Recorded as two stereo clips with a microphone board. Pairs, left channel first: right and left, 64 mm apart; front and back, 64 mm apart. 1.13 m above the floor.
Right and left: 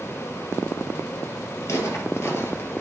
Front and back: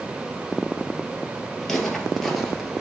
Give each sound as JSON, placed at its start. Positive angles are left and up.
{"t": 1.6, "sound": "footsteps", "azimuth_deg": -80, "distance_m": 1.7}